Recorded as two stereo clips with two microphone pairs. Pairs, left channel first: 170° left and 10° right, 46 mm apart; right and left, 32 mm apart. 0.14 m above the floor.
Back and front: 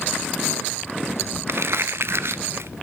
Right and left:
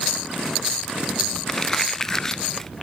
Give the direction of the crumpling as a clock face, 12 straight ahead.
1 o'clock.